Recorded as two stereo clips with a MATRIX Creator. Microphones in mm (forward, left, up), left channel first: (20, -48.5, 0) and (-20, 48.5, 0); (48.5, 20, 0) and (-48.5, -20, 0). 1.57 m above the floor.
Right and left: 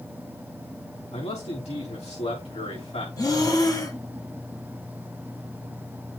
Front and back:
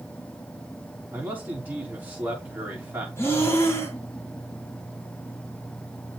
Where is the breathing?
35° right, 1.8 m.